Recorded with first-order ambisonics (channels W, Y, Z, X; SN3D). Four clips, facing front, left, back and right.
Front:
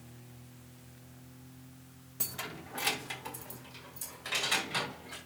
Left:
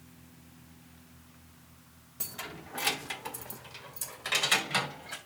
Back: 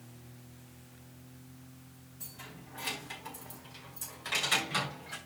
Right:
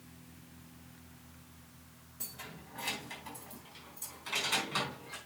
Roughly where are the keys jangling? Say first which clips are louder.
Left 6 dB, front 8 dB; ahead left.